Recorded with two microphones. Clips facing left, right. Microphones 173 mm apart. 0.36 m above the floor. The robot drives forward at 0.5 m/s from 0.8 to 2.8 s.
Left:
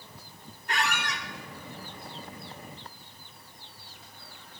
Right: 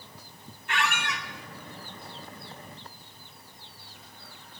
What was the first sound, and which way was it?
A squeak, 40° left (ahead or behind).